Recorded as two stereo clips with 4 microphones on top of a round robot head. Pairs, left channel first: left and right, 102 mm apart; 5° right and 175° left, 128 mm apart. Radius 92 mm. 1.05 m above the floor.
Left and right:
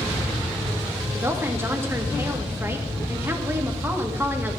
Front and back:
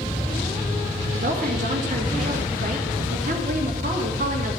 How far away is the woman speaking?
About 1.7 m.